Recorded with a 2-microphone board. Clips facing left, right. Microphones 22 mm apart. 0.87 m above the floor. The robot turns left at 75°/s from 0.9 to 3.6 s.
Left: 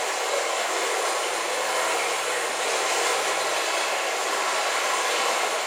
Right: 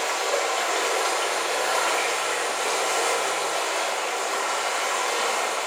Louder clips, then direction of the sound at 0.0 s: Right 1 dB; 55° right.